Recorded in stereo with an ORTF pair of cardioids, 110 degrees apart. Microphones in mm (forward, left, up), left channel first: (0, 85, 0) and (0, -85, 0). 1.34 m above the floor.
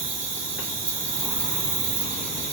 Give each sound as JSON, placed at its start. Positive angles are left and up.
{"t": 0.0, "sound": "an insect", "azimuth_deg": -50, "distance_m": 1.4}